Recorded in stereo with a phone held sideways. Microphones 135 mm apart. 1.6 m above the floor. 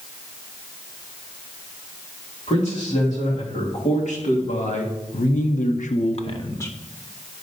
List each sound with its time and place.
2.5 s a man speaking: 55° left (ahead or behind), 3.5 m; by 6.8 s 15° left (ahead or behind), 0.7 m